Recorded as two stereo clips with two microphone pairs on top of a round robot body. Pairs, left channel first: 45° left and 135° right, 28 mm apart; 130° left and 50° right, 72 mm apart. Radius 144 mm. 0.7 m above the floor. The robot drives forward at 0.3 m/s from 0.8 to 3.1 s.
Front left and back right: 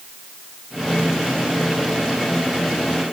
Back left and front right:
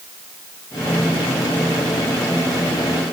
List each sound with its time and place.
Only background noise.